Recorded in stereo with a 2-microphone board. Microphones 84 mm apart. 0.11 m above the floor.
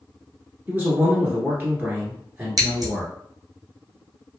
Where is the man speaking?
20° right (ahead or behind), 1.3 m.